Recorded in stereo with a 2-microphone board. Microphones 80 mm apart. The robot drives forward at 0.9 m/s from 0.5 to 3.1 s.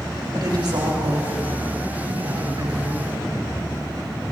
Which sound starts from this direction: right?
A woman speaking, at 0.3 s.